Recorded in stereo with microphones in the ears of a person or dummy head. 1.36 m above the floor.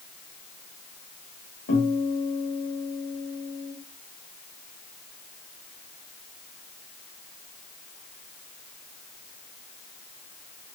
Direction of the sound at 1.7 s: 60° left (ahead or behind).